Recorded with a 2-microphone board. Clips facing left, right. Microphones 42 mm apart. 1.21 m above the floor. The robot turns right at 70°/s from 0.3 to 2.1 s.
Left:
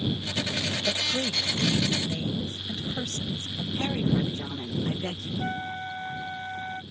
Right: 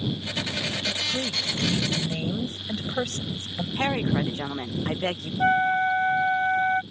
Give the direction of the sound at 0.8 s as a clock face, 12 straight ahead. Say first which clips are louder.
Even; 7 o'clock.